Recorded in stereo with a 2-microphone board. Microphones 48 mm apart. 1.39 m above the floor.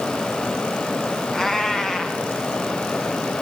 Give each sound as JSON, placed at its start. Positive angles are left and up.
{"t": 1.3, "sound": "a cat meowing", "side_deg": 10, "distance_m": 2.5}